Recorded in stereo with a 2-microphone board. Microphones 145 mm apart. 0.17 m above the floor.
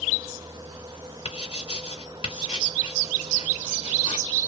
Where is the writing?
35° left (ahead or behind), 2 m.